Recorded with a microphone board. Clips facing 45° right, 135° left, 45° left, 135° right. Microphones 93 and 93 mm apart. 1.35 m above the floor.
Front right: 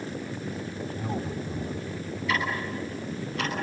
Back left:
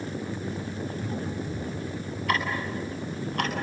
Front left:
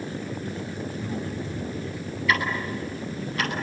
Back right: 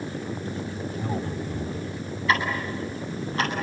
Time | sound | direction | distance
0.9 | a man speaking | 100° right | 3.5 m
2.3 | ticking | 170° left | 9.5 m